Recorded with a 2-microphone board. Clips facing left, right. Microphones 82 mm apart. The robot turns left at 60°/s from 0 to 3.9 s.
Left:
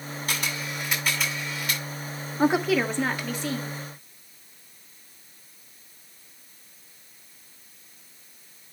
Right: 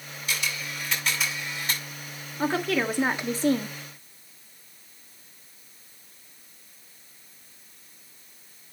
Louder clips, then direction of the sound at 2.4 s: Left 4 dB; 25° left.